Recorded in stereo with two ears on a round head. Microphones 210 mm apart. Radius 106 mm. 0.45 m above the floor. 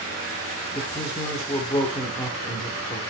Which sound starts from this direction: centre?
A man speaking, at 0.7 s.